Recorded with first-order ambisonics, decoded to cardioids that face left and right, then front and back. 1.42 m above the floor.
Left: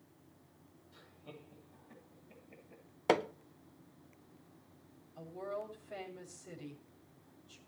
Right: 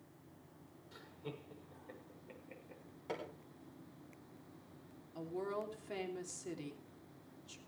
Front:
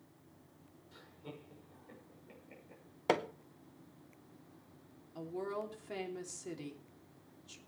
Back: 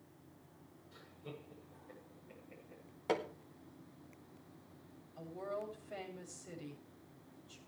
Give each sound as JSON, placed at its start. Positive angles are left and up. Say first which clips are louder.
{"t": 0.9, "sound": "laughter", "louder": "right 5 dB, even", "azimuth_deg": -75, "distance_m": 6.5}
{"t": 3.1, "sound": "hammering", "louder": "left 14 dB, front 4 dB", "azimuth_deg": 65, "distance_m": 0.8}
{"t": 5.2, "sound": "a woman speaking", "louder": "right 1 dB, front 2 dB", "azimuth_deg": -40, "distance_m": 3.0}